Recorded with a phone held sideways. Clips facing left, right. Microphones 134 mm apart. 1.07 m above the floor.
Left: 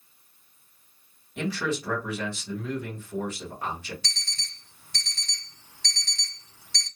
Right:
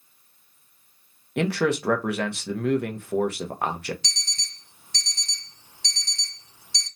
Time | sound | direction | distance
1.4 | a man speaking | 65° right (ahead or behind) | 0.7 m
4.0 | an alarm clock | 20° right (ahead or behind) | 1.0 m